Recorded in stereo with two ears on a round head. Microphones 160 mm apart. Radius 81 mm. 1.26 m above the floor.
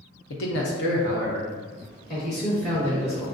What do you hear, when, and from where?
0.3 s a man speaking: 70° left (ahead or behind), 0.9 m; by 3.2 s 30° left (ahead or behind), 2 m